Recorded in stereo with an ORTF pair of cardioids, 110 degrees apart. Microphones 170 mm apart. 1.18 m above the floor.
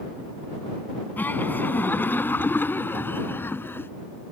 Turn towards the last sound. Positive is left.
turn(degrees=10)